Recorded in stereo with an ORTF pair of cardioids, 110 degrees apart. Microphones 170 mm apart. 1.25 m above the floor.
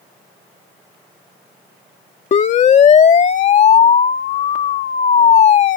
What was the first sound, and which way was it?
A siren, 45° left.